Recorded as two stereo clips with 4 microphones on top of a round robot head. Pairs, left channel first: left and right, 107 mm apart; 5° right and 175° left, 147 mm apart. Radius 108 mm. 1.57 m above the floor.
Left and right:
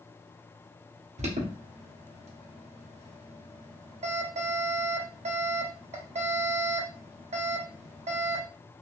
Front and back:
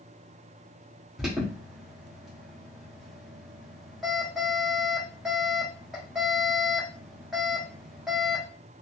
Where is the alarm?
95° right, 1.1 m.